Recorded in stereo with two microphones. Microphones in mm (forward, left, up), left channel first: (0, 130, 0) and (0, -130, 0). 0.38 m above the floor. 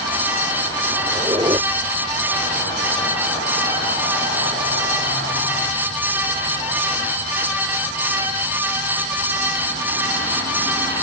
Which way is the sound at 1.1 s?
20° right (ahead or behind).